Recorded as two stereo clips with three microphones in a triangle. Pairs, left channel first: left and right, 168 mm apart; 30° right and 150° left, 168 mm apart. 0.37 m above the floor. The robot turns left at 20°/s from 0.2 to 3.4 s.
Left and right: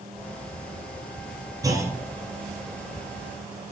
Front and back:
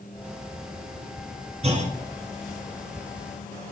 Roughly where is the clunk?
Behind.